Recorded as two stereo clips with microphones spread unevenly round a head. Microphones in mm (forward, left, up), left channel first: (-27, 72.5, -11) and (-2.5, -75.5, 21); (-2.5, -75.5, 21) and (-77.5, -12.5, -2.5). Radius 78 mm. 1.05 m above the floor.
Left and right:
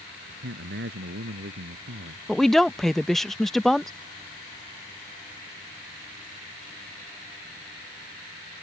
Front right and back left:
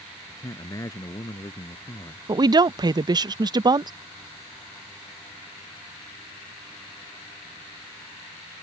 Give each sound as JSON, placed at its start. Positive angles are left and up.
{"t": 0.3, "sound": "a man speaking", "azimuth_deg": -95}
{"t": 2.3, "sound": "a woman speaking", "azimuth_deg": -175}